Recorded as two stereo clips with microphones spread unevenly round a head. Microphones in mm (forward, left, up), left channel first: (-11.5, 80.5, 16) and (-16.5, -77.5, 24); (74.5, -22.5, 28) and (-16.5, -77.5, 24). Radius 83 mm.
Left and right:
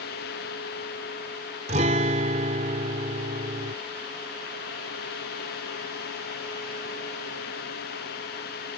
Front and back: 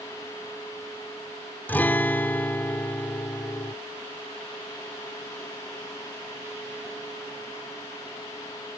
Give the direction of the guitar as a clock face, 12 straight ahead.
1 o'clock.